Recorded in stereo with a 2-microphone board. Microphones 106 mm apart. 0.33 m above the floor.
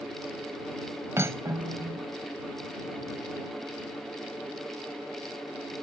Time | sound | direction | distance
1.2 | cutlery clinking | 25° right (ahead or behind) | ?